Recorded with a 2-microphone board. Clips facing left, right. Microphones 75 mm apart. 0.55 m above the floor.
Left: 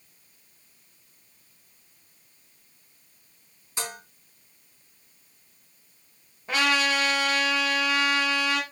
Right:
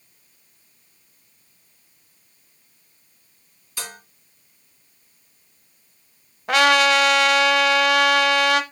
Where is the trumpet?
75° right (ahead or behind), 0.8 m.